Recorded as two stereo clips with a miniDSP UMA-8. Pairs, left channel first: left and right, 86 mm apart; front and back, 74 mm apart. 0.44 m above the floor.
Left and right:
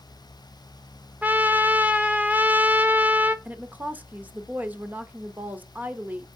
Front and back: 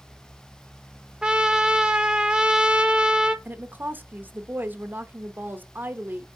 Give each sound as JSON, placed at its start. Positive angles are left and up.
{"t": 1.2, "sound": "a trumpet", "azimuth_deg": -115, "distance_m": 0.6}
{"t": 3.5, "sound": "a woman speaking", "azimuth_deg": -140, "distance_m": 0.9}